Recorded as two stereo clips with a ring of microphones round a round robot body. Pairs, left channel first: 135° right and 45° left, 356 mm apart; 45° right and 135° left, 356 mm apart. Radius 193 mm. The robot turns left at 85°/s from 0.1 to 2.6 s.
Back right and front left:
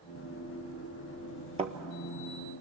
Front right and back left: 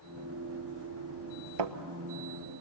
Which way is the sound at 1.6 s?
120° left.